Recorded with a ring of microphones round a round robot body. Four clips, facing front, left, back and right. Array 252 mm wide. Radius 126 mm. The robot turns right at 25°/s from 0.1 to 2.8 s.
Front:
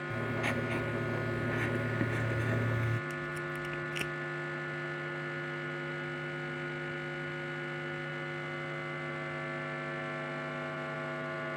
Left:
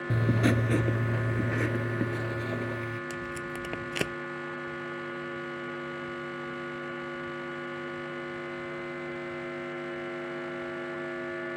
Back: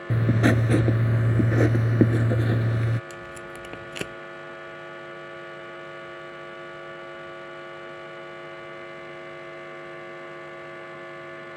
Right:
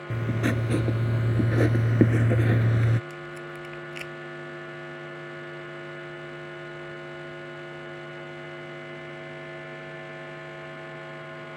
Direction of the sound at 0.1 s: 170° left.